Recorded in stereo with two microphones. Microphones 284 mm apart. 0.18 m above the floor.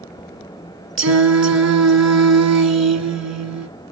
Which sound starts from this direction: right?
Singing, at 1.0 s.